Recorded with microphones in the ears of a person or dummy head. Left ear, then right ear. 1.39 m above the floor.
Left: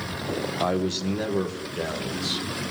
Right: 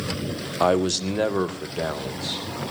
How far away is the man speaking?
About 1.2 m.